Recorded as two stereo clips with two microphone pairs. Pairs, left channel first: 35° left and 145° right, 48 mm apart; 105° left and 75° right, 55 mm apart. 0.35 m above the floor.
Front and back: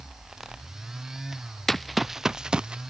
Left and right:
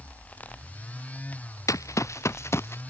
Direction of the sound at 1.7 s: 115° left.